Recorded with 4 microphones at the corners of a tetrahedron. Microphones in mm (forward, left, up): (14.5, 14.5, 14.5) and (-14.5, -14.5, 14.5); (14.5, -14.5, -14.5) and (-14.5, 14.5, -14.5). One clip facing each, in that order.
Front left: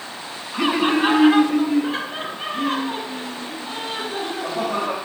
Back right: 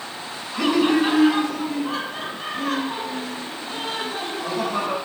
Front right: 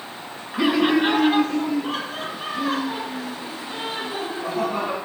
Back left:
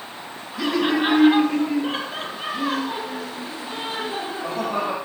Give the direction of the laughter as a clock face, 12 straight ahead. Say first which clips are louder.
Even, front right 3 dB; 12 o'clock.